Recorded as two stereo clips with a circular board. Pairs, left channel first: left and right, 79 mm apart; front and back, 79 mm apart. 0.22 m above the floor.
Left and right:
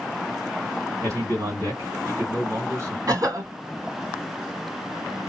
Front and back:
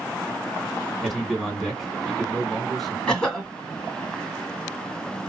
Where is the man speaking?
85° right, 2 m.